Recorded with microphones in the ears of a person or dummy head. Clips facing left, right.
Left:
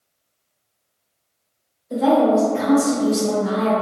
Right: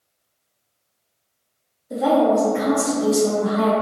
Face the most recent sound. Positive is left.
turn(degrees=-65)  # may be behind; listen again after turning